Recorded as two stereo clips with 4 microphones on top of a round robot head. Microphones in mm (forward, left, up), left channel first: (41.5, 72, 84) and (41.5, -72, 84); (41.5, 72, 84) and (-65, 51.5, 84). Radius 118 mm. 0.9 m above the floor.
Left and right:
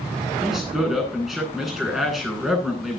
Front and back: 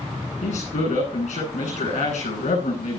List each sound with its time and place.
0.4 s a man speaking: straight ahead, 10 m